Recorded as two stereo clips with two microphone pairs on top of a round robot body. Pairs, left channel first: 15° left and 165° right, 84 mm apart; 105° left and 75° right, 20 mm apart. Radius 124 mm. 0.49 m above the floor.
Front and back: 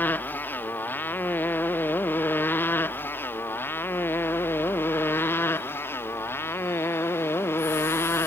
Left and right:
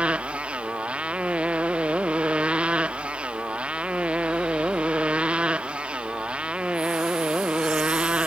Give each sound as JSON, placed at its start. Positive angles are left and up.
{"t": 0.0, "sound": "a motorcycle", "azimuth_deg": -55}